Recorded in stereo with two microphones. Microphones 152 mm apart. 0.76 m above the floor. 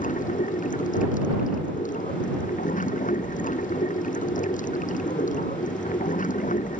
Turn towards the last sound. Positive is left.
turn(degrees=65)  # may be behind; listen again after turning